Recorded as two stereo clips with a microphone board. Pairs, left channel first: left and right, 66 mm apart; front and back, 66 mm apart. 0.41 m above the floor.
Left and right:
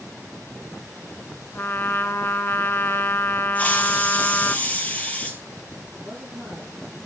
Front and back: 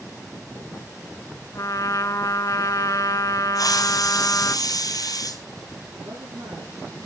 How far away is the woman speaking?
About 9.5 m.